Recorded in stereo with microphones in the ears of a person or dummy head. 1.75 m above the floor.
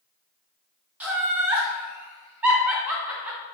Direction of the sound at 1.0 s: 5° right (ahead or behind).